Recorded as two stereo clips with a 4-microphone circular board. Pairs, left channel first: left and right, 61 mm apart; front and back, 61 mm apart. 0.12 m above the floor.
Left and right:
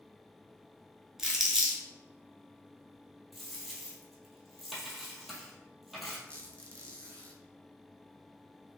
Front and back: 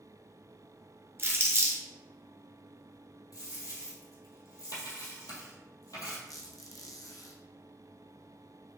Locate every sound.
1.2 s crumpling: 170° right, 1.1 m
3.3 s a dropped coin: straight ahead, 1.1 m
6.3 s a squeak: 20° left, 0.8 m